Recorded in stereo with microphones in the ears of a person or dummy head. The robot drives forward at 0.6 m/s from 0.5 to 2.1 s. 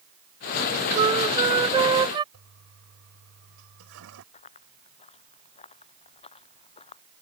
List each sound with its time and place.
0.9 s a flute: 25° right (ahead or behind)
2.3 s a toilet flushing: 90° right
4.3 s running footsteps: 35° left (ahead or behind); by 7.0 s 30° left (ahead or behind)